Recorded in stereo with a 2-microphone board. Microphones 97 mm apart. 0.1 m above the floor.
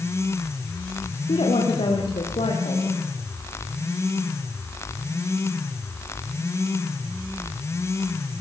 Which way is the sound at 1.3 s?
75° left (ahead or behind).